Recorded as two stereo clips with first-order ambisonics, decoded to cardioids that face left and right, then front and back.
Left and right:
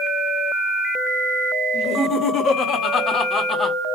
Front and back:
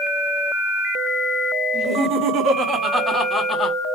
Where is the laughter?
145° left, 2.5 m; by 3.8 s 20° left, 1.1 m.